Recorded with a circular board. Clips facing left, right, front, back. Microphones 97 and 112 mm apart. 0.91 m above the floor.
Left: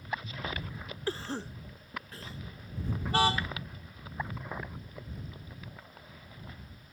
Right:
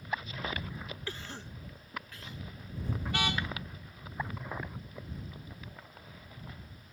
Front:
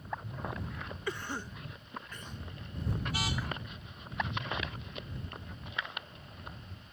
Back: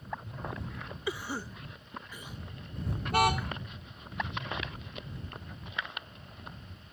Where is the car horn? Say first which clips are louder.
Left 7 dB, back 10 dB; 145° left.